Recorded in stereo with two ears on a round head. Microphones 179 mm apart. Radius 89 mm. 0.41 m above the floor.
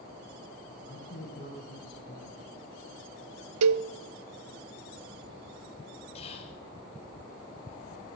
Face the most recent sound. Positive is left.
turn(degrees=35)  # may be behind; listen again after turning